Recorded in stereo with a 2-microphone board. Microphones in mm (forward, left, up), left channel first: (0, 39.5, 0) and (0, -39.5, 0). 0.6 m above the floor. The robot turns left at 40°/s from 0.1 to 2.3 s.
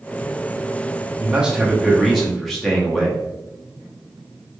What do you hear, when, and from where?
1.2 s a man speaking: 15° right (ahead or behind), 0.7 m; by 3.2 s centre (ahead or behind), 0.7 m